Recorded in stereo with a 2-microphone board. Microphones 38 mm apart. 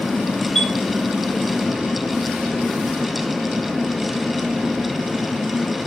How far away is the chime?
About 1.5 m.